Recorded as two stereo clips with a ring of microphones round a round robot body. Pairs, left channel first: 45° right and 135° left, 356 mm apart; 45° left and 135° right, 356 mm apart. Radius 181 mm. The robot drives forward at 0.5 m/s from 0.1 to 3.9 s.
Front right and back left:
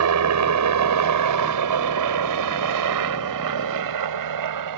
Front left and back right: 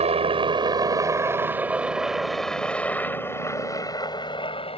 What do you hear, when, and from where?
0.0 s a helicopter: 155° left; by 4.8 s 115° left